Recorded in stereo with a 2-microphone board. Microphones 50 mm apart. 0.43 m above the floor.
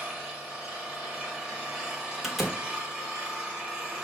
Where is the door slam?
5° right (ahead or behind), 0.9 m.